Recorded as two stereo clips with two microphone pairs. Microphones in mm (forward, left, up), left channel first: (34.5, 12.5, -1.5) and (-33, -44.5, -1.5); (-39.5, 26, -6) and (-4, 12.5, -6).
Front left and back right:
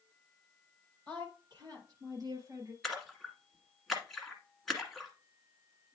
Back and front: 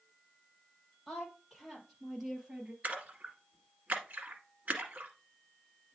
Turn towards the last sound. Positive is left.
turn(degrees=-50)